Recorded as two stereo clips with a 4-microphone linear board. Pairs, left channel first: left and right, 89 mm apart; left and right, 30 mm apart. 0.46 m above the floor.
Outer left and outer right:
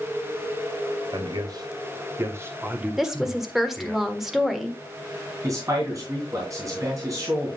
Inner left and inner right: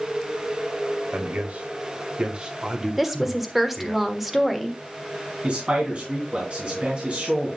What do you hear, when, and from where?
1.1 s a man speaking: 55° right (ahead or behind), 1.8 m; by 4.0 s 10° left (ahead or behind), 1.6 m
3.0 s a woman speaking: 5° right (ahead or behind), 1.3 m
5.4 s a man speaking: 40° right (ahead or behind), 3.5 m